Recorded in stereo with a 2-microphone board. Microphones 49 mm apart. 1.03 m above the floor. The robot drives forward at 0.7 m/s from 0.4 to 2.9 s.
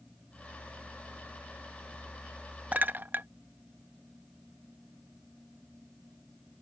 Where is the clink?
35° right (ahead or behind); by 3.3 s 40° right (ahead or behind).